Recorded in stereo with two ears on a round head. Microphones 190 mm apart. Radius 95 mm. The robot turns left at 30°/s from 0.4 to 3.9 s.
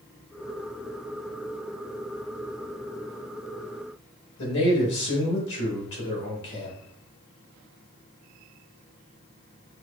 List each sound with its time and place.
4.4 s a man speaking: 65° left (ahead or behind), 2 m